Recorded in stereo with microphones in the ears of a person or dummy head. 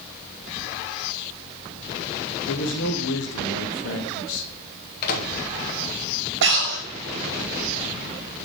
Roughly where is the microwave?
Left.